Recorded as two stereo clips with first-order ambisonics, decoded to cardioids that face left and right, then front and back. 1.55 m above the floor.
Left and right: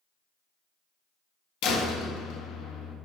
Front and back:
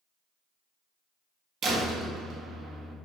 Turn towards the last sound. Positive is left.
turn(degrees=120)